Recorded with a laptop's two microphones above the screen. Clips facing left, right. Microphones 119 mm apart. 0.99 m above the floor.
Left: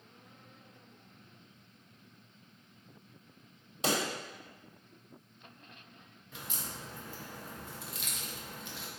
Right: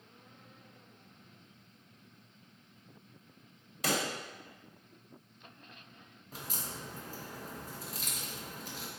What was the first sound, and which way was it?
A pop, 25° left (ahead or behind).